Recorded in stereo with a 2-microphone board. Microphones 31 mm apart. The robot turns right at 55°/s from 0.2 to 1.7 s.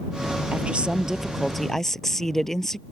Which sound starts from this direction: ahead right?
A woman speaking, at 0.5 s.